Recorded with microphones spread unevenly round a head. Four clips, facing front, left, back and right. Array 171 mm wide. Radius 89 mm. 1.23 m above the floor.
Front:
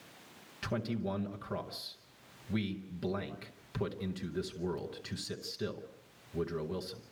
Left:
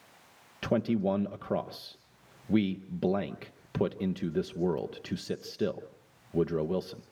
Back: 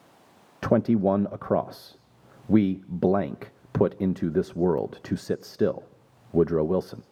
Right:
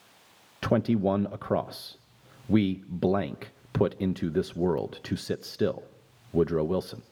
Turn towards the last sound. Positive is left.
turn(degrees=-170)